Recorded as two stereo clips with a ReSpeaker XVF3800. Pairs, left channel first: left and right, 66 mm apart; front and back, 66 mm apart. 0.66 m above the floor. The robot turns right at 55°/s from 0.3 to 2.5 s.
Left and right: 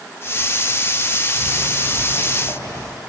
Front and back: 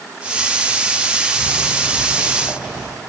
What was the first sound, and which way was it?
Footsteps, 45° left.